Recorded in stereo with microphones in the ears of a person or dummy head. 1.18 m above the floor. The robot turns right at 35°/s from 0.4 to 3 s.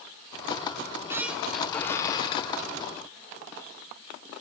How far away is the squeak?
About 1.0 m.